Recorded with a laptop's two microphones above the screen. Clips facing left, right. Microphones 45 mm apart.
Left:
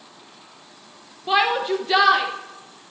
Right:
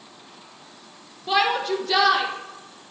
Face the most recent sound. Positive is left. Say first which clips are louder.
# left 2 dB
turn(degrees=20)  # may be behind; listen again after turning